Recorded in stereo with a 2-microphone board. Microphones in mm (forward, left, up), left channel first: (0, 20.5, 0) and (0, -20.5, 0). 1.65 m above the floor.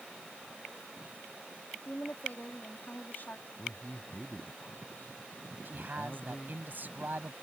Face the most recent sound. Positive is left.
turn(degrees=-50)  # may be behind; listen again after turning